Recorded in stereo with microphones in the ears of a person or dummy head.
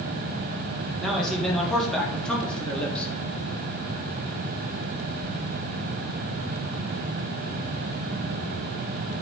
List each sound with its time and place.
1.0 s a man speaking: 5° left (ahead or behind), 3.5 m; by 3.1 s 10° left (ahead or behind), 2.5 m